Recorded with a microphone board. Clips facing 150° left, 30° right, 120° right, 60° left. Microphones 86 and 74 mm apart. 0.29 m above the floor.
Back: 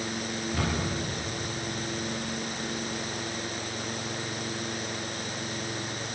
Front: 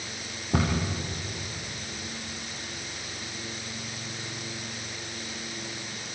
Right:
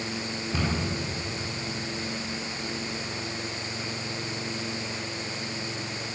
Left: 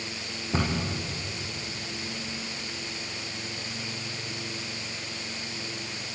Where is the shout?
I don't hear a shout.